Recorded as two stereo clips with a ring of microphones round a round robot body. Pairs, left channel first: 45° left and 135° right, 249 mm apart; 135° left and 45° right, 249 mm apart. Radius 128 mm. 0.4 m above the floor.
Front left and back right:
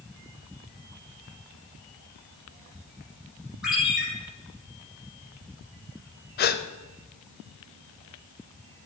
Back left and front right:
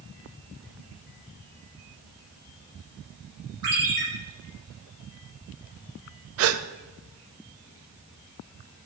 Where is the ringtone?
45° right, 4.5 m.